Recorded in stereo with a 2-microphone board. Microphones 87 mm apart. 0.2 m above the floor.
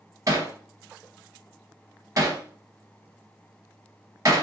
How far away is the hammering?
About 1.0 m.